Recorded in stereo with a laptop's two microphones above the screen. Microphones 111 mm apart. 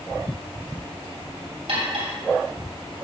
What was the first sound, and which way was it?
Cutlery clinking, 70° right (ahead or behind).